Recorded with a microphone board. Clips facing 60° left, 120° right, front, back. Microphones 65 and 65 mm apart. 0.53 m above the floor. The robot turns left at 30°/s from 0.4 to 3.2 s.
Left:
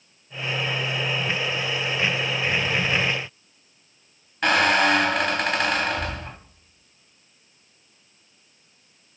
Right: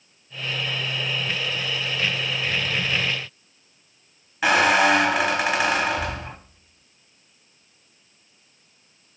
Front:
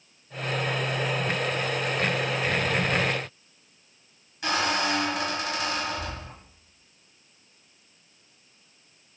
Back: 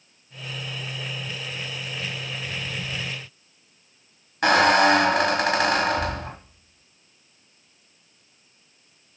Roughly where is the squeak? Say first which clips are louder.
Right 2 dB, back 9 dB; behind left.